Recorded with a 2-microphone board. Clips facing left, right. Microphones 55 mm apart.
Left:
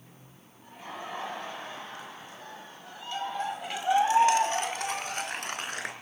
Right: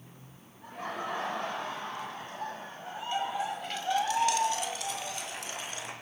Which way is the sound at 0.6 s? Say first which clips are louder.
Right 4 dB; 75° right (ahead or behind).